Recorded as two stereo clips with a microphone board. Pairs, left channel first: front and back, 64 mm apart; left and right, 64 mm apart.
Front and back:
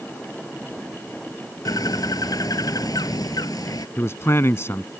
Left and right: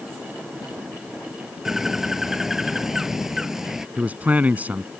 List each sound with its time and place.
1.6 s a bird: 5° right
4.0 s a man speaking: 30° right